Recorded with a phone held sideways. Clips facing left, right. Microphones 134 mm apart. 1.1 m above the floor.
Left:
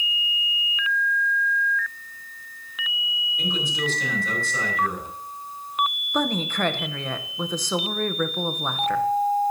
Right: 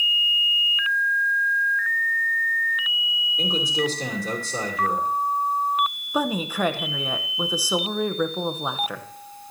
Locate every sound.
3.4 s a man speaking: 40° right (ahead or behind), 3 m
6.1 s a woman speaking: 10° right (ahead or behind), 0.7 m